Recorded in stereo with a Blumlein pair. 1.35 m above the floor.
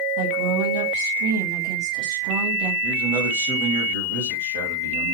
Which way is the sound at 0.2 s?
50° right.